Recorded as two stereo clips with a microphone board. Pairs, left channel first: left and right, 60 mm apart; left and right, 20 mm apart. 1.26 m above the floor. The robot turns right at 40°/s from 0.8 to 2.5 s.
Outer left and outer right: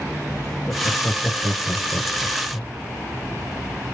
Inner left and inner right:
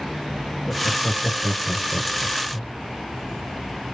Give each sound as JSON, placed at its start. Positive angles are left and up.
{"t": 0.7, "sound": "laughter", "side_deg": 15, "distance_m": 0.9}